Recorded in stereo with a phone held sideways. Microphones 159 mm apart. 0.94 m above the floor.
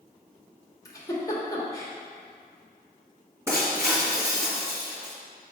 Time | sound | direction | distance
0.8 | a giggle | 20° left (ahead or behind) | 1.2 m
3.5 | breaking glass | 15° right (ahead or behind) | 2.5 m